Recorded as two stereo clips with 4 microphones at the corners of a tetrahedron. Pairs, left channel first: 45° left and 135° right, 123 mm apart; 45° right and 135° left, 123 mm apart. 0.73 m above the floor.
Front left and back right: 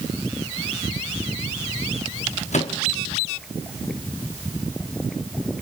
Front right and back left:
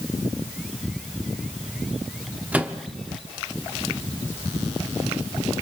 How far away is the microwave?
About 0.9 m.